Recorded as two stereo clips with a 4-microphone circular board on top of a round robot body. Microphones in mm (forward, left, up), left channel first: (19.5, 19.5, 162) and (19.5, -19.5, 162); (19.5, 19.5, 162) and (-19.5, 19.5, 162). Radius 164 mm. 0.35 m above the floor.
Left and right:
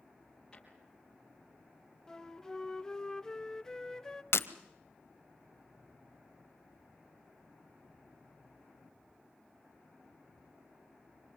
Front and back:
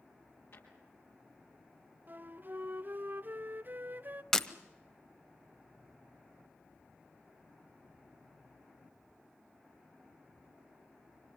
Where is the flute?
160° left, 1.2 m.